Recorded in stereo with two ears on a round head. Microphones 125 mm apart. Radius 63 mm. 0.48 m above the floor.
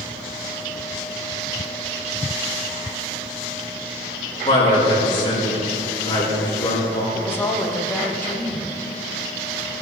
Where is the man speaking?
35° left (ahead or behind), 4 m; by 7.0 s 25° left (ahead or behind), 5 m.